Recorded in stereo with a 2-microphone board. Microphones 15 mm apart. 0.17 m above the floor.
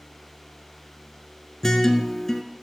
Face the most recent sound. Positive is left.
turn(degrees=30)  # may be behind; listen again after turning